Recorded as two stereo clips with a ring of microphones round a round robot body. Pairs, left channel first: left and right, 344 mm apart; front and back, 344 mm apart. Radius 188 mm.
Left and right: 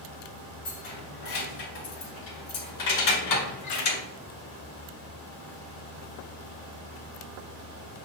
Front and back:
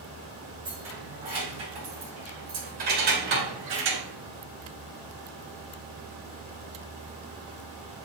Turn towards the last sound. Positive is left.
turn(degrees=130)